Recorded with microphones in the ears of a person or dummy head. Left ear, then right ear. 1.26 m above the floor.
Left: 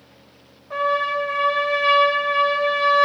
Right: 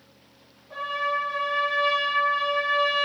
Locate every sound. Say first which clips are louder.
0.7 s a trumpet: left 6 dB; 30° left (ahead or behind), 0.9 m